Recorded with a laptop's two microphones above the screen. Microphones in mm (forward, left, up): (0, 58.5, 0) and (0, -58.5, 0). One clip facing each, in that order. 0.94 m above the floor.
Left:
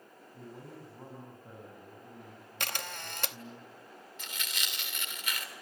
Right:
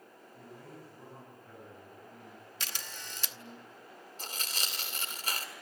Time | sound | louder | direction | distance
0.3 | a man speaking | left 3 dB | 25° left (ahead or behind) | 7 m
2.6 | a camera shutter | left 7 dB | 55° left (ahead or behind) | 0.9 m
4.2 | tearing paper | right 2 dB | 35° right (ahead or behind) | 3 m